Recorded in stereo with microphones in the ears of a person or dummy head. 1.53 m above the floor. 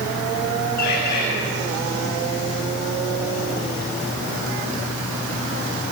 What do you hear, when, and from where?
0.8 s a bird: 55° left (ahead or behind), 5.5 m